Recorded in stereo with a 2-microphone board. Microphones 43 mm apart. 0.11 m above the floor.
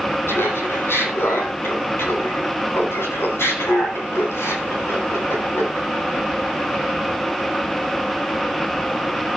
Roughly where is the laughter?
Left.